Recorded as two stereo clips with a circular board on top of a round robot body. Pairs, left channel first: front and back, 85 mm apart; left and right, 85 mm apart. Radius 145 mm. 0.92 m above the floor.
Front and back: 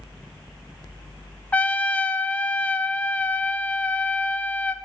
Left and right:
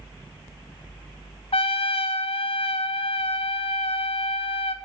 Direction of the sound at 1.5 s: 75° left.